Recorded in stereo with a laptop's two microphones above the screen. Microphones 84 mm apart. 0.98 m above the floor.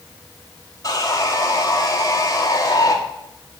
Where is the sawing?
45° left (ahead or behind), 1.7 m.